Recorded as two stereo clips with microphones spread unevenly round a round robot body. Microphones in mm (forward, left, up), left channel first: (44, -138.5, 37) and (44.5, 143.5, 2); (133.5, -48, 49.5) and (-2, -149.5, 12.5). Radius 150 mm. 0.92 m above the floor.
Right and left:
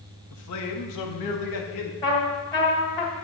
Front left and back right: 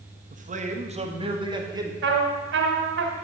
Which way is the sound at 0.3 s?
130° right.